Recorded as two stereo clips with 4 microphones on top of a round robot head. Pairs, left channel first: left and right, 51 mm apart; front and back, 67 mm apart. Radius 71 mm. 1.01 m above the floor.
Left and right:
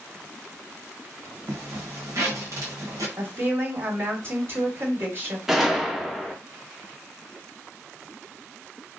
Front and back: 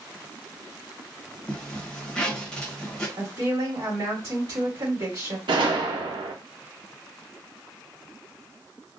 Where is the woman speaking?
135° right, 2 m.